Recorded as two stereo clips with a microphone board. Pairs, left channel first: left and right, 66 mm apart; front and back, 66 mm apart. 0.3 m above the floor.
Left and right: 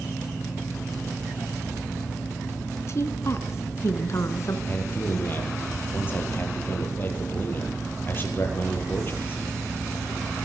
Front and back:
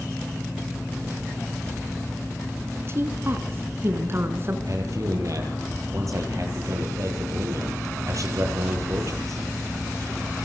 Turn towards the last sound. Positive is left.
turn(degrees=145)